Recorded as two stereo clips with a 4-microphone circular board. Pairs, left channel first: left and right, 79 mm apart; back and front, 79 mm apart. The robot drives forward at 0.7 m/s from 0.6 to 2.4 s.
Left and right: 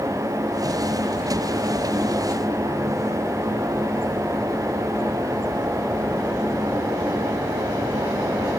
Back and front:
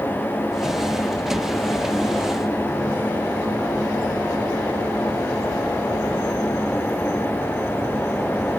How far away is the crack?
No crack in this recording.